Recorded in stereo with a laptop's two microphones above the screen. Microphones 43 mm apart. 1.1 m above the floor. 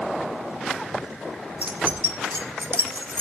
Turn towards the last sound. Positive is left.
turn(degrees=-60)  # may be behind; listen again after turning